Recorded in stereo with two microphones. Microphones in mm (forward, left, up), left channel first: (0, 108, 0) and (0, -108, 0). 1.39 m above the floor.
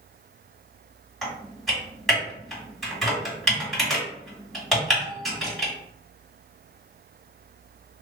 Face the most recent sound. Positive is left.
turn(degrees=0)  # may be behind; listen again after turning